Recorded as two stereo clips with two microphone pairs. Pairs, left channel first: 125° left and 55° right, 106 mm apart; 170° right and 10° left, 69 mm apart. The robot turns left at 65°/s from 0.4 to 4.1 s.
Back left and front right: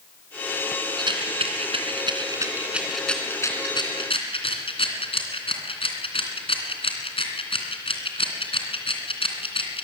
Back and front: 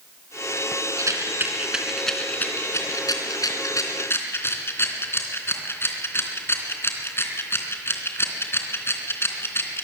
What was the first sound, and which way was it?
A rattle, 15° right.